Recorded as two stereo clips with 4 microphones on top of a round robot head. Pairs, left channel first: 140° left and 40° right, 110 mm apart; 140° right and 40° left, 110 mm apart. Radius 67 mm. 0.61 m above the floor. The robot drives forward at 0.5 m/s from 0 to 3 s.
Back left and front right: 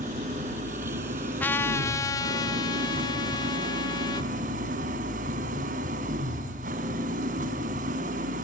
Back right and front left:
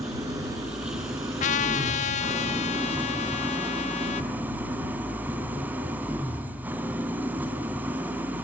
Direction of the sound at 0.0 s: 20° right.